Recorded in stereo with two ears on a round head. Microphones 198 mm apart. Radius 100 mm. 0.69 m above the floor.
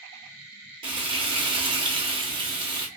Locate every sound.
0.8 s frying: 25° right (ahead or behind), 0.7 m